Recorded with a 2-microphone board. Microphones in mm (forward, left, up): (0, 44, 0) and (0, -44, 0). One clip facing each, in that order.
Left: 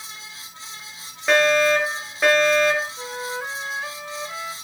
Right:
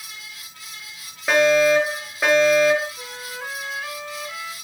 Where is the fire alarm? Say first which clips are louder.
Right 2 dB; centre (ahead or behind), 3.5 m.